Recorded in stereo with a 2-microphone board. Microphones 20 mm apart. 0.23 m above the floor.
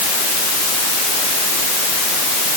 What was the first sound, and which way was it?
Only background noise.